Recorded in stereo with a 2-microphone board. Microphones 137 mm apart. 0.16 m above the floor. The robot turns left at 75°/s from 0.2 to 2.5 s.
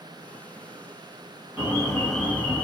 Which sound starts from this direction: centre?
An alarm, at 1.6 s.